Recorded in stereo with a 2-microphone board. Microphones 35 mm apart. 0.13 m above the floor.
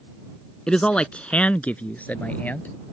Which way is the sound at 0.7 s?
25° left (ahead or behind).